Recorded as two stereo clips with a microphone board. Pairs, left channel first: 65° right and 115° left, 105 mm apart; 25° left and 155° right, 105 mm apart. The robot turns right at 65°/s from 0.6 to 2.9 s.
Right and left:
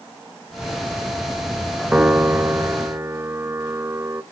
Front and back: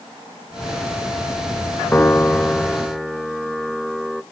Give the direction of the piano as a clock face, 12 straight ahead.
10 o'clock.